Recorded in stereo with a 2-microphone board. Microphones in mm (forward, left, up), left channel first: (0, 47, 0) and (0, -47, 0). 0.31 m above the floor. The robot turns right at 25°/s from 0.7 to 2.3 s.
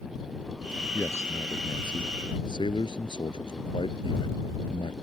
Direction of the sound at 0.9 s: 25° left.